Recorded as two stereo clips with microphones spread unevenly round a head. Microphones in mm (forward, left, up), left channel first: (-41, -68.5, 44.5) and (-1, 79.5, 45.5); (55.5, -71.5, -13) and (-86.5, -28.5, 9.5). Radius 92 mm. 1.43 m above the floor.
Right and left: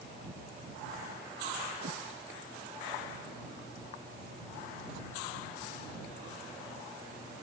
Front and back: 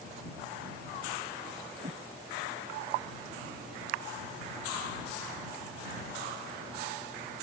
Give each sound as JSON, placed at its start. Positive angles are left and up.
{"t": 1.8, "sound": "a whoosh", "azimuth_deg": 115}